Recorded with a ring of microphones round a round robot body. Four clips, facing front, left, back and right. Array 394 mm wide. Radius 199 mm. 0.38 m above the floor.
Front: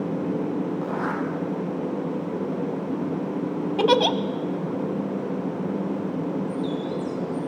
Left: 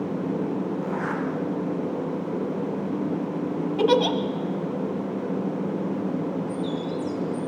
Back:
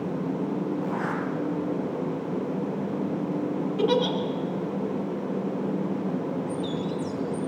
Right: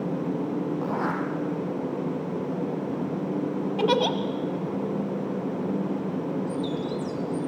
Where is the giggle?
Straight ahead, 1.6 m.